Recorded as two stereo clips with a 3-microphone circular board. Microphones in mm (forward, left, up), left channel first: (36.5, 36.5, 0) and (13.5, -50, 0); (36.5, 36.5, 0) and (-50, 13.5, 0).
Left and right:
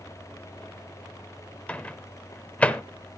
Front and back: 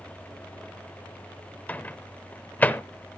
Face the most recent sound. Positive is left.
turn(degrees=30)